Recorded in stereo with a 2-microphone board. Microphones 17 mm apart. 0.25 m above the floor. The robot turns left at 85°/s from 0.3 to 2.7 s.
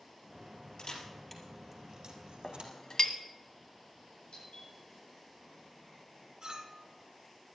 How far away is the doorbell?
About 8 m.